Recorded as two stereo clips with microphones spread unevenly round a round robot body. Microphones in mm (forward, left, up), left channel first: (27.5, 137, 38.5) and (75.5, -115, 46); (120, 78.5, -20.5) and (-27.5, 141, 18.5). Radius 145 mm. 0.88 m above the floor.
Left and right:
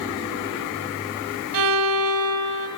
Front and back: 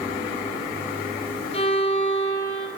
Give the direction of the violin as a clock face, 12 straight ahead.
3 o'clock.